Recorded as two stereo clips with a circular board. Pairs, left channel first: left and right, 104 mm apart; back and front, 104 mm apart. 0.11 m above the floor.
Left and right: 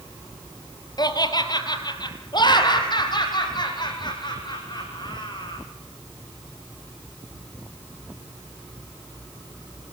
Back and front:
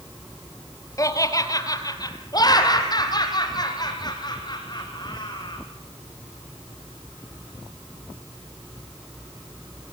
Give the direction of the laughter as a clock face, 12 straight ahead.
8 o'clock.